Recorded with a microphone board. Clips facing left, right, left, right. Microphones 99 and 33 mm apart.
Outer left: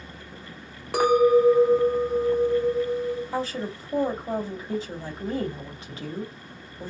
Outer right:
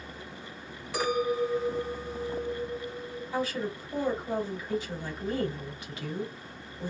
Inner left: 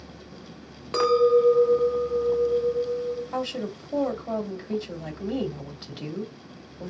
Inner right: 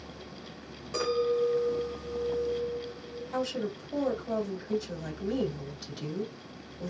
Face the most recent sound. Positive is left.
turn(degrees=30)  # may be behind; listen again after turning